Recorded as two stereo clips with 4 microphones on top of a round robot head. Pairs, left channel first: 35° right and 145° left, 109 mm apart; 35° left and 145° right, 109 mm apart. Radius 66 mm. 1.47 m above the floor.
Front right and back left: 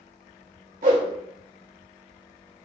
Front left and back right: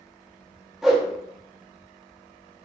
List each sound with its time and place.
0.8 s a whoosh: 130° left, 0.9 m